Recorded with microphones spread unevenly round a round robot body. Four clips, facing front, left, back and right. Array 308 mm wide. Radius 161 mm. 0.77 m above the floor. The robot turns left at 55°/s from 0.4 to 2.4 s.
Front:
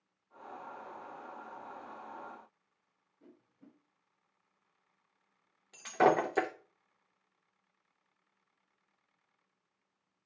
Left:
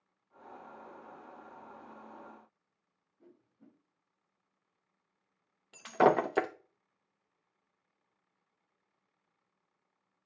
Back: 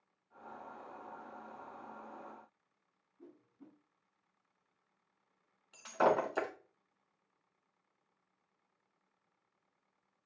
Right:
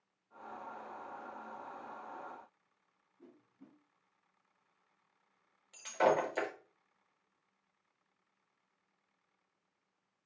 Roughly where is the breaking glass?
Left.